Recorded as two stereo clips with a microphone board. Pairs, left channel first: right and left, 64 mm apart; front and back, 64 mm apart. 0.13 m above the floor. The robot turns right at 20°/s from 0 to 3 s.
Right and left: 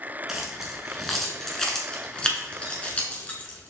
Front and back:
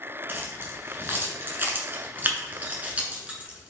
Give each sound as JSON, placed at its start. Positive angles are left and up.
{"t": 0.3, "sound": "keys jangling", "azimuth_deg": 170, "distance_m": 1.0}